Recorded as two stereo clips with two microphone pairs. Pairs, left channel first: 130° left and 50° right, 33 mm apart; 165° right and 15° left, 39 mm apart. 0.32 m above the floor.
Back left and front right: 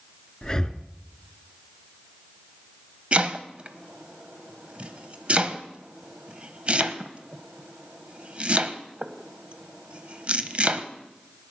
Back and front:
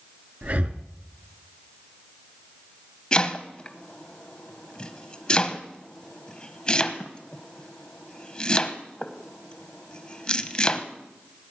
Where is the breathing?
60° left, 1.0 m.